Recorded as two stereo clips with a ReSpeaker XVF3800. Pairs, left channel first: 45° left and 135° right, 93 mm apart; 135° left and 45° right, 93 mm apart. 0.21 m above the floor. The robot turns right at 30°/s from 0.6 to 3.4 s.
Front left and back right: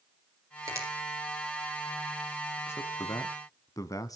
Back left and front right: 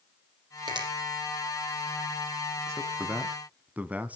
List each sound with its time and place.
0.7 s a finger snap: 80° right, 6 m; by 0.9 s 75° right, 6 m
2.7 s a man speaking: straight ahead, 1.3 m; by 4.2 s 20° left, 1.3 m